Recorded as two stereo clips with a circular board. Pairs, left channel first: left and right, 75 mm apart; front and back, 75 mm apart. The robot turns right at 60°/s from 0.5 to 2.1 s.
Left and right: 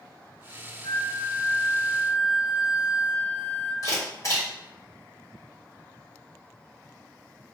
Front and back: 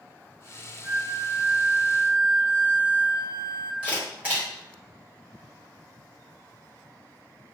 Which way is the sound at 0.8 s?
95° left.